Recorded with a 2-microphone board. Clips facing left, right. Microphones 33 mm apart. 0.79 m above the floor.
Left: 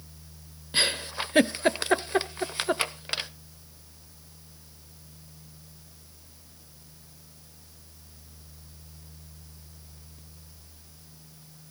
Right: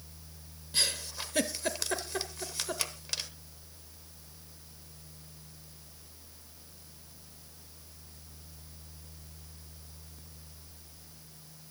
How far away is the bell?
I don't hear a bell.